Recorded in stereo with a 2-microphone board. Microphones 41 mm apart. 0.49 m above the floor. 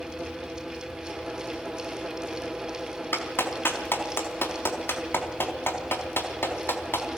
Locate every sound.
3.1 s a clap: 65° left (ahead or behind), 4 m